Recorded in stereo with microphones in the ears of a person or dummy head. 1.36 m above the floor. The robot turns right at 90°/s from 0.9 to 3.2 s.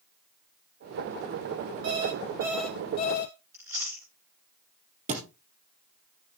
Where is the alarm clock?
75° right, 3 m; by 3.4 s 45° left, 3 m.